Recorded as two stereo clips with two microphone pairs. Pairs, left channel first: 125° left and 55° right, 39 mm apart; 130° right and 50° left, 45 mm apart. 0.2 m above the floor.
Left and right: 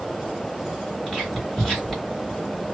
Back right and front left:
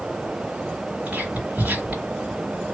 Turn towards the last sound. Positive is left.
turn(degrees=65)